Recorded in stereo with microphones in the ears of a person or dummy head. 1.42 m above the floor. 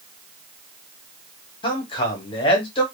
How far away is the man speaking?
About 1.0 m.